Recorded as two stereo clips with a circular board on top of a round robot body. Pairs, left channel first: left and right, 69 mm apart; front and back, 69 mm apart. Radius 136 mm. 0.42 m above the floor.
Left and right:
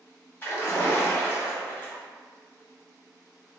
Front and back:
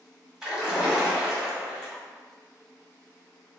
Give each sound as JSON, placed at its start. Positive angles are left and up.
{"t": 0.4, "sound": "a splash", "azimuth_deg": 110, "distance_m": 1.4}